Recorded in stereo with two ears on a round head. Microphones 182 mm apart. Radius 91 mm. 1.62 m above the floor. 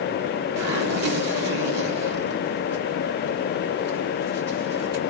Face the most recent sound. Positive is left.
turn(degrees=-55)  # may be behind; listen again after turning